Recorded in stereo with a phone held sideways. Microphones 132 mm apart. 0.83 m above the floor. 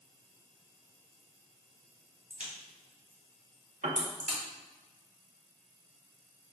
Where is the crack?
75° right (ahead or behind), 2.0 m.